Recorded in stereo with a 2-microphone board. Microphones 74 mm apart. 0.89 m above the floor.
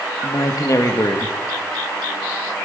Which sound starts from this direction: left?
A man speaking, at 0.2 s.